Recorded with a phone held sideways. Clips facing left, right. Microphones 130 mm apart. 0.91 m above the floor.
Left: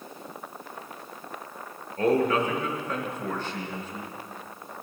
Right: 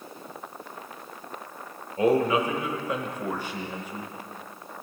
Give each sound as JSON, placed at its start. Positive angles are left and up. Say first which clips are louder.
{"t": 2.0, "sound": "a man speaking", "louder": "right 1 dB", "side_deg": -10, "distance_m": 1.1}